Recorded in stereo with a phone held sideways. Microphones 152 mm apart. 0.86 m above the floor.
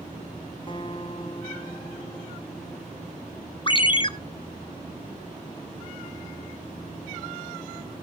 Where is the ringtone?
35° left (ahead or behind), 0.9 m.